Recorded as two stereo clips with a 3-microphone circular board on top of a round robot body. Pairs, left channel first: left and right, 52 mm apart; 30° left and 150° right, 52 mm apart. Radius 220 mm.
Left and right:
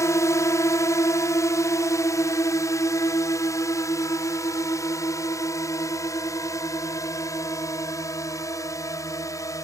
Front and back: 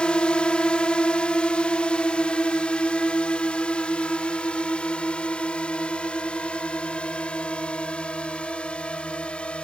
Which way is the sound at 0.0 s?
100° left.